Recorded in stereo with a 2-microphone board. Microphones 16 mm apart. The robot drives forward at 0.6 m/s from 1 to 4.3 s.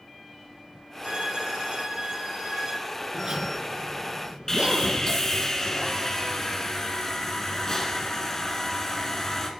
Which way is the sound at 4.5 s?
35° left (ahead or behind).